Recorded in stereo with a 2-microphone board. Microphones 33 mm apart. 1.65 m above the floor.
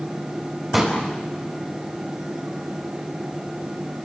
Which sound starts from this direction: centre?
A pop, at 0.7 s.